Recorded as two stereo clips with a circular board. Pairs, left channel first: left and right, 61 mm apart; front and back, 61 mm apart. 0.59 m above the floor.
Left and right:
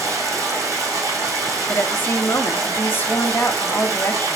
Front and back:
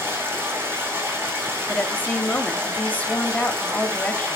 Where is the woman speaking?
50° left, 0.9 m.